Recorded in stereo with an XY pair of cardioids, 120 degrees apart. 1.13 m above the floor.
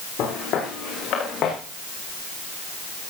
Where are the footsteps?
65° left, 7.5 m; by 1.6 s 55° left, 6.5 m.